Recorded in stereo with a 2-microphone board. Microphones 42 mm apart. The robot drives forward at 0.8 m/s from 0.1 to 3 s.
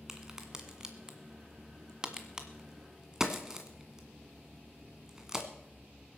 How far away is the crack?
About 1.9 m.